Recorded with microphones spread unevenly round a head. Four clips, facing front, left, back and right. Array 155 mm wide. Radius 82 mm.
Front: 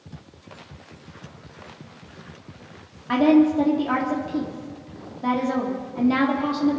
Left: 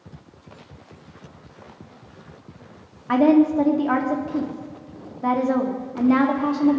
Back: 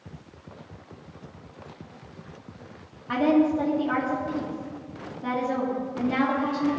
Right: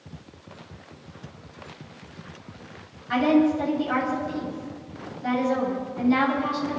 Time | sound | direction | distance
3.1 | a woman speaking | 70° left | 2.5 m